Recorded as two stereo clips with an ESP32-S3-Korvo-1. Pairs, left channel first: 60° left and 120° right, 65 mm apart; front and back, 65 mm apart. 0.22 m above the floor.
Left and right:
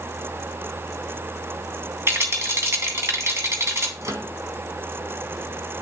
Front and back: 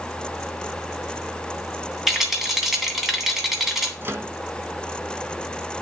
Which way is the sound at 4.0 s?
140° right.